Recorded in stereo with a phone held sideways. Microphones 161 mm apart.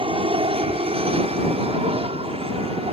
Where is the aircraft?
35° right (ahead or behind); by 2.9 s 40° right (ahead or behind).